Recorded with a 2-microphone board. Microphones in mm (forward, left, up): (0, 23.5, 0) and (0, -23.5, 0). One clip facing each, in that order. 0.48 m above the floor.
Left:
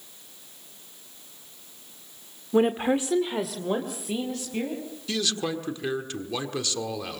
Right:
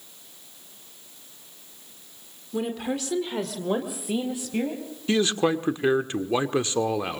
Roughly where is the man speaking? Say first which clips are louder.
Right 7 dB; right.